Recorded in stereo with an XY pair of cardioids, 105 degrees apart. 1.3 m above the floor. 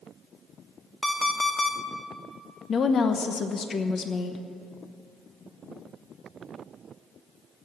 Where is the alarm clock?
10° left, 1.7 m.